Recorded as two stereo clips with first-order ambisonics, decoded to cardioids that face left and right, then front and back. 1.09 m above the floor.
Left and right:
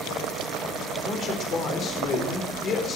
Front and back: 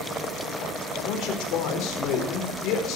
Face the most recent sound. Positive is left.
turn(degrees=30)